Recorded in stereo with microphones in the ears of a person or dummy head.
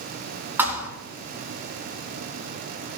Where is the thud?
15° right (ahead or behind), 3.5 m.